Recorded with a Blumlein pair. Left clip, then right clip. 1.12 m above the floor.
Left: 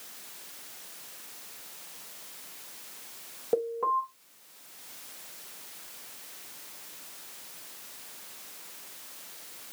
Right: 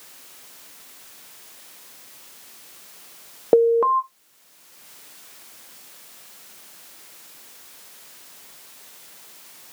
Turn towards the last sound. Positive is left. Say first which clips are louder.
# right 12 dB
turn(degrees=-55)